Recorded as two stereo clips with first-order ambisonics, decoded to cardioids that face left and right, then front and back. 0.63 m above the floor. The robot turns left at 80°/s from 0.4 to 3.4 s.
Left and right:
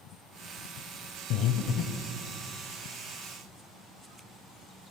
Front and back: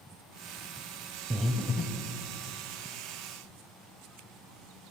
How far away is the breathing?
About 0.5 m.